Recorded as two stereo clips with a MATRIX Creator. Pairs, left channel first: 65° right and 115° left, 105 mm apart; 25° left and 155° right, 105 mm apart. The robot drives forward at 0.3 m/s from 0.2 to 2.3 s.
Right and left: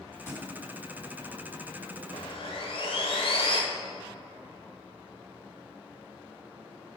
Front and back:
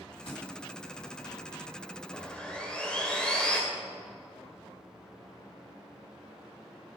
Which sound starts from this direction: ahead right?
Sawing, at 2.1 s.